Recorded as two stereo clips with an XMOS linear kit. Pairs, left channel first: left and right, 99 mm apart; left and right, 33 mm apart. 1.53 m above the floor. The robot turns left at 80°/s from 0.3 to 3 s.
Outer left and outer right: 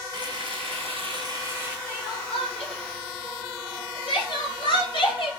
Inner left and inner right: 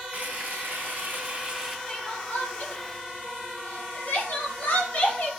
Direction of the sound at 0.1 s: 55° right.